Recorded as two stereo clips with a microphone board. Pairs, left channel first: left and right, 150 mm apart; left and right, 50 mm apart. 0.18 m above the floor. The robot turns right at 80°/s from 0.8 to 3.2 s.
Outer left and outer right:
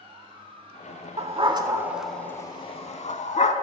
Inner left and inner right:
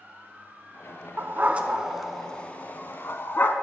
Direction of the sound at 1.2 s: 45° right (ahead or behind).